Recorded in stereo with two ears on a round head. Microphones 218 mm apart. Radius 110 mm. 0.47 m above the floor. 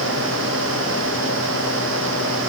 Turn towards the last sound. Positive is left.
No sound to turn to.